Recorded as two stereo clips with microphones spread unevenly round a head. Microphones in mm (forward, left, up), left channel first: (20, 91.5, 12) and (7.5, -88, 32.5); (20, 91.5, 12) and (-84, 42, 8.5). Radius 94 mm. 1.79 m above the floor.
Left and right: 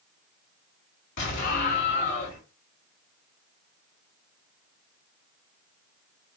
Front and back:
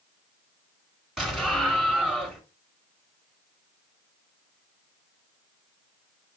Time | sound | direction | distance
1.2 | an explosion | 120° left | 3.5 m